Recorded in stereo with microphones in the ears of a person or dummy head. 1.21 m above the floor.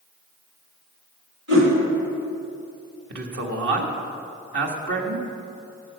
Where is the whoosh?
80° right, 3.5 m.